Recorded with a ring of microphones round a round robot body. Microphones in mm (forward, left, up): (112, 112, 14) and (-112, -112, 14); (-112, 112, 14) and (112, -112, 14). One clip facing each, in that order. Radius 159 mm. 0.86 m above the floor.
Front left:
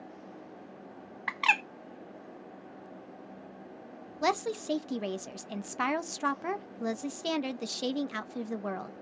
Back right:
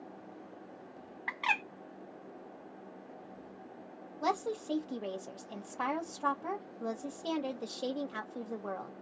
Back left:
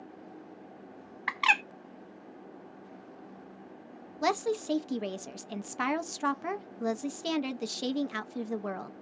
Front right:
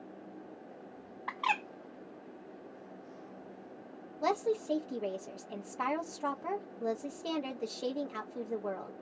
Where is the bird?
100° left, 0.5 m.